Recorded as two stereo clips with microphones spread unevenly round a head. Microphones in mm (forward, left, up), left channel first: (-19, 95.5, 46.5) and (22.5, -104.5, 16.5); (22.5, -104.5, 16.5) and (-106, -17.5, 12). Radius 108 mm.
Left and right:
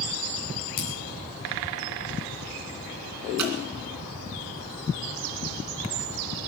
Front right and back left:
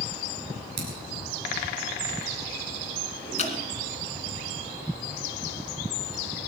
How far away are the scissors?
About 4 m.